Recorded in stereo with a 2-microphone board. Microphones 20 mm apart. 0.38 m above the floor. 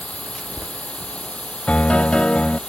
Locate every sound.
0.0 s a drone: 80° left; by 2.7 s 65° left (ahead or behind)
1.7 s a piano: 65° left (ahead or behind)